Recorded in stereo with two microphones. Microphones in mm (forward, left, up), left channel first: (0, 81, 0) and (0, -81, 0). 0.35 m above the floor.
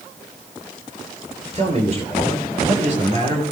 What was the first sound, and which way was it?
A man speaking, 45° right (ahead or behind).